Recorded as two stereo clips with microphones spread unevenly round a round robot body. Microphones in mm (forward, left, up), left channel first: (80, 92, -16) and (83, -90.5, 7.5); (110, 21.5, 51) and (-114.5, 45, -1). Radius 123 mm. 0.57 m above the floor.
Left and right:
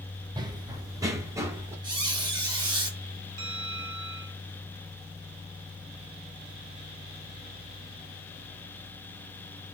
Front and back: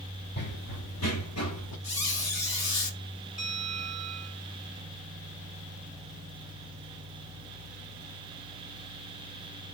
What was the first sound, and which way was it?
Running footsteps, 30° right.